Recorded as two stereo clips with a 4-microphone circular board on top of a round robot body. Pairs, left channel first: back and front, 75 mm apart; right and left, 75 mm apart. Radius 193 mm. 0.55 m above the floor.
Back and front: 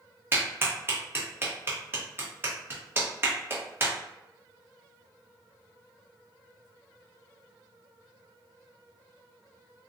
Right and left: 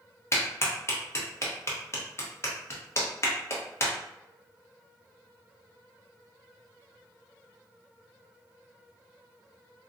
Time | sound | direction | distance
0.3 | a clap | 50° right | 1.3 m